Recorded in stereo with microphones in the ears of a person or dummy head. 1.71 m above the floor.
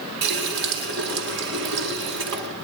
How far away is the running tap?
About 2 m.